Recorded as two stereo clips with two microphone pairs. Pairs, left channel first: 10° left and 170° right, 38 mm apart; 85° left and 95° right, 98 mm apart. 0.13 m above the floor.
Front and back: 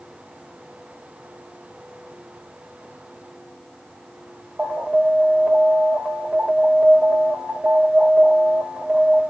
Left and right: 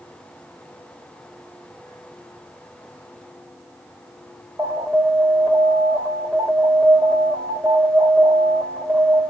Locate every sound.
4.6 s an alarm: 130° right, 2.5 m